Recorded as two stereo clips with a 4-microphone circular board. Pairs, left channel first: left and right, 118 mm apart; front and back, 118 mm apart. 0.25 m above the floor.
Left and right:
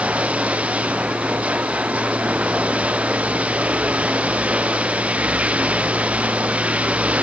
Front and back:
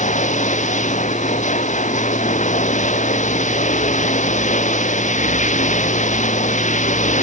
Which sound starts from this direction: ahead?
Running water, at 0.0 s.